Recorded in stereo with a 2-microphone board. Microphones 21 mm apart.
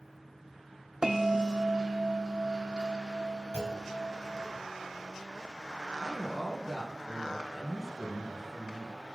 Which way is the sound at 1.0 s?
40° right (ahead or behind).